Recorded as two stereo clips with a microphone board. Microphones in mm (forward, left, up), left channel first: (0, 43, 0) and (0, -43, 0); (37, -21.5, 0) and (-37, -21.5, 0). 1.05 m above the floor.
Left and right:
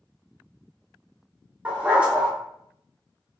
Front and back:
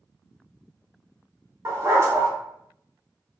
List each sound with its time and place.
1.6 s a dog barking: 155° right, 0.6 m